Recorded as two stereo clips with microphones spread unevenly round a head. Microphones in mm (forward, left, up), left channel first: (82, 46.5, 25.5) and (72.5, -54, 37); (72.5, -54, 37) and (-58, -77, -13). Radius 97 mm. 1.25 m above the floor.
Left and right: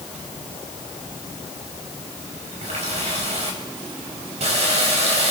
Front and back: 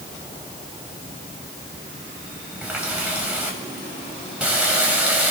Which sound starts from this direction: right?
A running tap, at 2.6 s.